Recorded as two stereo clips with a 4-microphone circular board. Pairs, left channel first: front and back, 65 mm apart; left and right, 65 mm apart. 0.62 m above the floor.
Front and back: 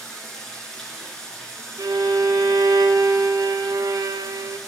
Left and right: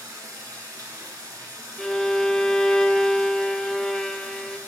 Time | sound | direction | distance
0.0 | running water | 80° right | 2.5 m
1.8 | a violin | 170° left | 0.5 m